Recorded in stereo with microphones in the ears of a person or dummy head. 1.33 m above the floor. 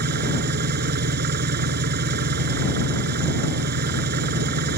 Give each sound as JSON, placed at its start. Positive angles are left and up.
{"t": 0.0, "sound": "an engine running", "side_deg": -55}